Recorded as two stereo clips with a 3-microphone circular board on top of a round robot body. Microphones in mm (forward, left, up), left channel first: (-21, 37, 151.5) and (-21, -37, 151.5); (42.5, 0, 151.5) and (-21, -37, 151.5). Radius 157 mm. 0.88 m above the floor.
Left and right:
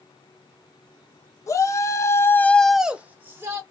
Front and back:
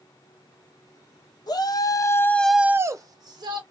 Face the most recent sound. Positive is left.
turn(degrees=-145)